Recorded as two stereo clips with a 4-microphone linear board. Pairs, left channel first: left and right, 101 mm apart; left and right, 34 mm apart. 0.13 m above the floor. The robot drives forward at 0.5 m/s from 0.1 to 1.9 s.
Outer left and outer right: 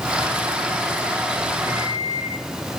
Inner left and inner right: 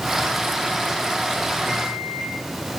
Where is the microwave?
30° right (ahead or behind), 5.5 m.